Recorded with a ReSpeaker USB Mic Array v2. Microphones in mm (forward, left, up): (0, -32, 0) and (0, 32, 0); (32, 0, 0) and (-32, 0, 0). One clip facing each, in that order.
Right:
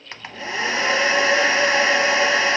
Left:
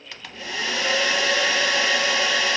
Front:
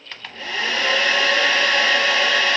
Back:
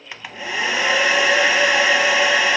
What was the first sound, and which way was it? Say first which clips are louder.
A hair dryer: right 4 dB, back 2 dB; 115° right.